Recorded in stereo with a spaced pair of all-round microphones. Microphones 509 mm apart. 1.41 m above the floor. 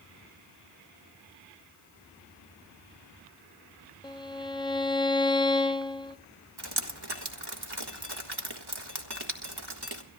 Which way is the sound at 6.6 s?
45° right (ahead or behind).